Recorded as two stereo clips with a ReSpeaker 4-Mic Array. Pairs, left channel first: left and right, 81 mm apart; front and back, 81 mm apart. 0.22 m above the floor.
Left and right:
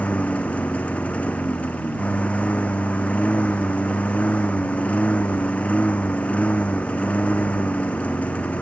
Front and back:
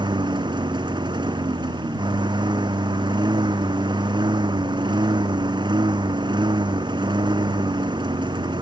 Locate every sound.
0.0 s a lawn mower: 165° left